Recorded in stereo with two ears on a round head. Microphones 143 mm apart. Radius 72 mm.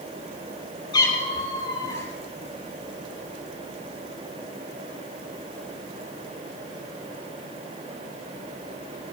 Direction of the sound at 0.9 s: 25° left (ahead or behind).